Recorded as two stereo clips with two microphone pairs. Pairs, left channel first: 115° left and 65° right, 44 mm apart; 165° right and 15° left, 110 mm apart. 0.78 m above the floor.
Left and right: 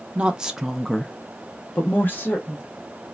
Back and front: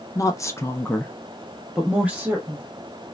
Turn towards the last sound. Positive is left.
turn(degrees=85)